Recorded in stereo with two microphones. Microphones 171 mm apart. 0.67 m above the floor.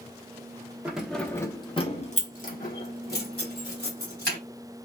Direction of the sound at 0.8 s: 10° right (ahead or behind).